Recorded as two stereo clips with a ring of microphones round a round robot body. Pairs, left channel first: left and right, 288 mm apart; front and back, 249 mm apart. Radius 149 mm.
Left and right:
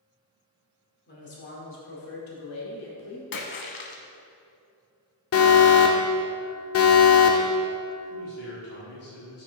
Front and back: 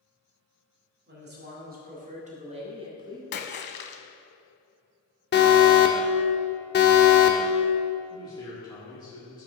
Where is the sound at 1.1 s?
140° left, 2 m; by 3.2 s 105° left, 2 m.